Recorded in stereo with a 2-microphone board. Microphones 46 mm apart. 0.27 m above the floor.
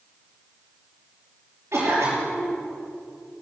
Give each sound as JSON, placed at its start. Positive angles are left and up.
{"t": 1.7, "sound": "a cough", "side_deg": -65, "distance_m": 6.0}